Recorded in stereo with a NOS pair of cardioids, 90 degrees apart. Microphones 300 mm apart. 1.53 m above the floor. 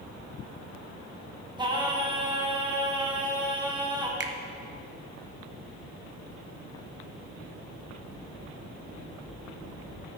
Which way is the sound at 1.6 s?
15° right.